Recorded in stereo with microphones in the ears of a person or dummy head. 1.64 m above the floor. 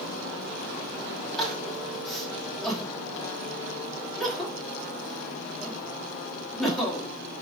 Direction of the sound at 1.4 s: Centre (ahead or behind).